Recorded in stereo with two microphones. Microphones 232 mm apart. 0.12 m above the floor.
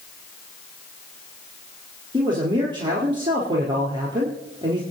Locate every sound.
2.1 s a man speaking: 20° right (ahead or behind), 3 m